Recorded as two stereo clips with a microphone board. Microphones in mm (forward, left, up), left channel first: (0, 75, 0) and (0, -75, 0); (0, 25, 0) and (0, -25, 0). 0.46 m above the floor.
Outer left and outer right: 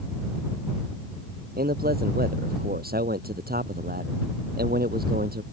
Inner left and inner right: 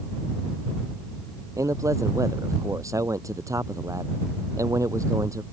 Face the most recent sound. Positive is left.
turn(degrees=-85)